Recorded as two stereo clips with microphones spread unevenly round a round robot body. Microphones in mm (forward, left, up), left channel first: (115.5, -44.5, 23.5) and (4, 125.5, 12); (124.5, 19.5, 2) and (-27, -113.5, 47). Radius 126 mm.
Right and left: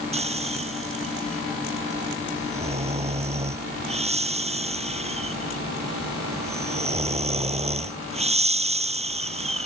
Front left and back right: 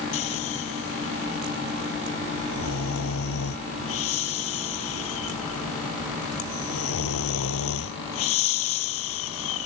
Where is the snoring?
65° left.